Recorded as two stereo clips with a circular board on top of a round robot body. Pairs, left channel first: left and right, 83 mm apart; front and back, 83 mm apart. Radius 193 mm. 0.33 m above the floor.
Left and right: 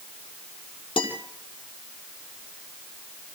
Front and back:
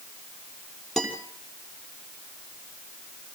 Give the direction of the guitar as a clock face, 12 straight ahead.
9 o'clock.